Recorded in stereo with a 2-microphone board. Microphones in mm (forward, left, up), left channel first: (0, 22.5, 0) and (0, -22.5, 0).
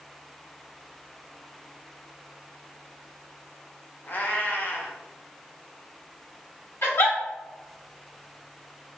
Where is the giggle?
75° left (ahead or behind), 1.6 m.